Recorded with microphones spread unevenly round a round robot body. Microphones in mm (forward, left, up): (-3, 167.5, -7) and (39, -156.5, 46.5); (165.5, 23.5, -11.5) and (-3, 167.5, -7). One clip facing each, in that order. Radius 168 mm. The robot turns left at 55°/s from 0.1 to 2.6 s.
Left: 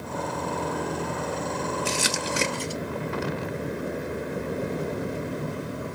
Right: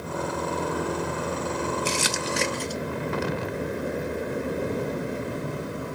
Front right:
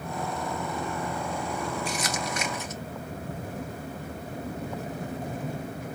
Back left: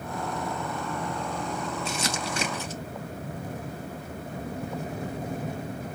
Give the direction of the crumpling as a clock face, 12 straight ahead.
6 o'clock.